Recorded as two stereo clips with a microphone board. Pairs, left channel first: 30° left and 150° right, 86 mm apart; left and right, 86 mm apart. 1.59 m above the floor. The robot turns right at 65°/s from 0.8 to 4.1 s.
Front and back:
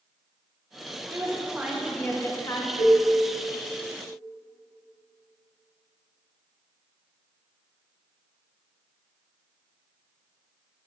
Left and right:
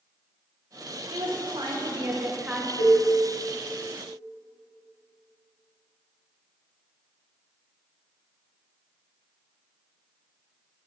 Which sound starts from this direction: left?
A cowbell, at 2.8 s.